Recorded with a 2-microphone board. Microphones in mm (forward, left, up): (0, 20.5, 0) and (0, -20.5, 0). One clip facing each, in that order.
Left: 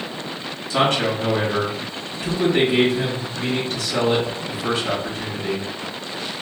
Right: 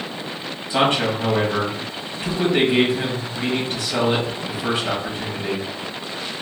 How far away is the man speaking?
About 1.5 m.